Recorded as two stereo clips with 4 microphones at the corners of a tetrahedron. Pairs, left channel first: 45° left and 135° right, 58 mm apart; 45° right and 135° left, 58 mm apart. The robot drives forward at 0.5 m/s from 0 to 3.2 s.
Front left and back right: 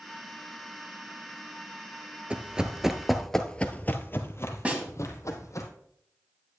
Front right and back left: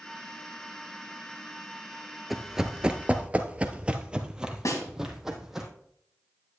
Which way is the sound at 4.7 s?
65° right.